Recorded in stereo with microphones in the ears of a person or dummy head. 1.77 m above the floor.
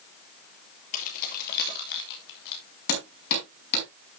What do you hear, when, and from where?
0.9 s keys jangling: 45° left (ahead or behind), 2 m; by 2.6 s 70° left (ahead or behind), 2.5 m
2.9 s hammering: 65° left (ahead or behind), 5 m